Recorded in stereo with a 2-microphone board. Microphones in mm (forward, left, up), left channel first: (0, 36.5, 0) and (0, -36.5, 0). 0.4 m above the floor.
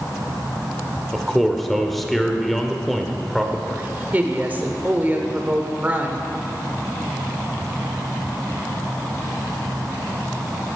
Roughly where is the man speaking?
Centre.